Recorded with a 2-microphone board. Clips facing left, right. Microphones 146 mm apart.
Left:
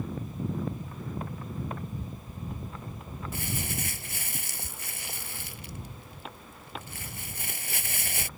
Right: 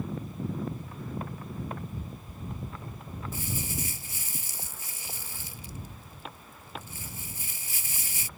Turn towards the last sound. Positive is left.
turn(degrees=80)